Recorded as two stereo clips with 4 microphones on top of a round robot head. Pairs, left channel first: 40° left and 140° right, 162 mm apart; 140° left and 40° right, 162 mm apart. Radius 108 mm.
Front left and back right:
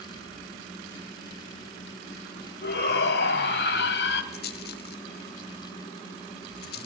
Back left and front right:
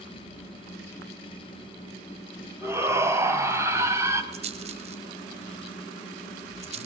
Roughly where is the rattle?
Ahead.